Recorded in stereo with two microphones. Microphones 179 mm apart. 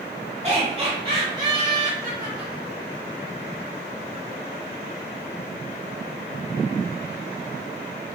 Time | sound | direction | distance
0.4 | laughter | 35° right (ahead or behind) | 1.1 m